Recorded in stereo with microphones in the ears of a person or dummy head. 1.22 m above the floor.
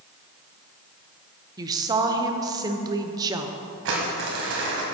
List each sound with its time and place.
1.6 s a woman speaking: 20° right (ahead or behind), 0.7 m
3.9 s crumpling: 65° right (ahead or behind), 2 m